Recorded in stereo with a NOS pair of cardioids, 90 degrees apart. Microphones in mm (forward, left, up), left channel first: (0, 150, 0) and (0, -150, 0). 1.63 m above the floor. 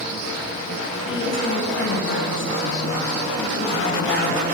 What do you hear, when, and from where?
1.1 s a woman speaking: 40° left, 8.5 m